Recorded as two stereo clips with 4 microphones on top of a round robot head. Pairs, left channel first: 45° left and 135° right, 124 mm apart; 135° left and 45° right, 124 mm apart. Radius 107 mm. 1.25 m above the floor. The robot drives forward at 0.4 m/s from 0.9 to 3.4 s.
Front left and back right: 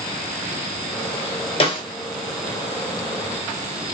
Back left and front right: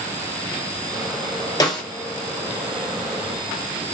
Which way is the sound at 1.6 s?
80° left.